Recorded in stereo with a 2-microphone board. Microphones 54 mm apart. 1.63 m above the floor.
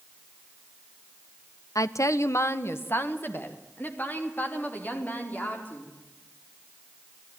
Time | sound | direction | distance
1.8 | a woman speaking | 75° left (ahead or behind) | 0.6 m